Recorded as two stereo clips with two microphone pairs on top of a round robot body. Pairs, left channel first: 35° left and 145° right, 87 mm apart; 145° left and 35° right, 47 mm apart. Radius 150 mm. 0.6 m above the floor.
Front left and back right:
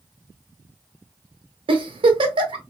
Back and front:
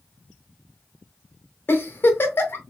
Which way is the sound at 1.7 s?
170° right.